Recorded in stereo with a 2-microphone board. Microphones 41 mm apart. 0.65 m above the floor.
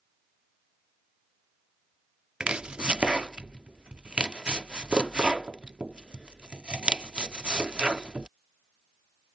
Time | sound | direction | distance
2.4 | chopping | 25° right (ahead or behind) | ?